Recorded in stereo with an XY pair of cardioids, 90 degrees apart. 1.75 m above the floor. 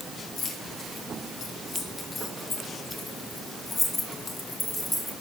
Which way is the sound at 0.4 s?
65° left.